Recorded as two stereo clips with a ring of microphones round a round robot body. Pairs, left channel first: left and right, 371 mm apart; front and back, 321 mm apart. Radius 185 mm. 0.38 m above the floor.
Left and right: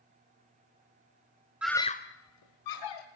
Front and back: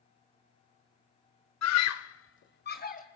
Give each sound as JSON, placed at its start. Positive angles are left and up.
{"t": 1.6, "sound": "a scream", "azimuth_deg": -5, "distance_m": 1.2}